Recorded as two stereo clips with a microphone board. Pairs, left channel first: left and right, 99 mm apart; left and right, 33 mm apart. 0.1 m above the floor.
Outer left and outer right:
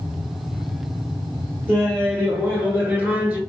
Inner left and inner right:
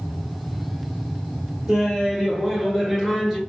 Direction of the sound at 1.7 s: 20° right (ahead or behind).